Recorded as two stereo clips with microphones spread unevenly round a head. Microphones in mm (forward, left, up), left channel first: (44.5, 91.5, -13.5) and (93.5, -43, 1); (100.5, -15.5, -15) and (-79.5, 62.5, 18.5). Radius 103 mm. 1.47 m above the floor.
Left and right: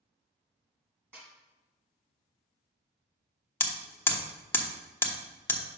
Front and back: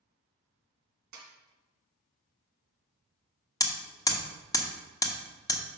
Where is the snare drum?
155° right, 2 m.